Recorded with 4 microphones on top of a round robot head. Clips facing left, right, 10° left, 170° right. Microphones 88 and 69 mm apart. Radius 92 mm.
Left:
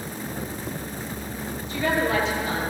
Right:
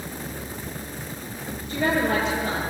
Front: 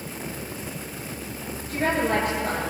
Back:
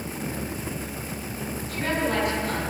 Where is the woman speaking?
50° right, 9.5 m.